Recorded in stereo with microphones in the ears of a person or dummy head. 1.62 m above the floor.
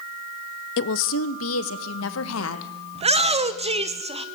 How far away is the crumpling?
I don't hear crumpling.